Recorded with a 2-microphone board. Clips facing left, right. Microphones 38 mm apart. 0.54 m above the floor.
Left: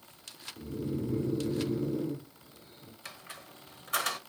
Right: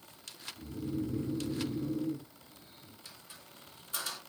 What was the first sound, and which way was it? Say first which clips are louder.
Snoring: left 2 dB; 85° left.